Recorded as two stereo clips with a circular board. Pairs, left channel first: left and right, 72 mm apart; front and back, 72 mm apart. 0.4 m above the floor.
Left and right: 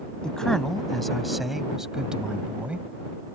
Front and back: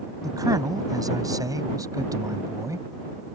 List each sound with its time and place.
0.2 s a man speaking: 170° left; by 2.9 s 155° right